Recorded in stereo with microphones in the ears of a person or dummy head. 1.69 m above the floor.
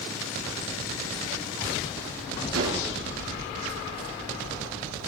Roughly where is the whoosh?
Right.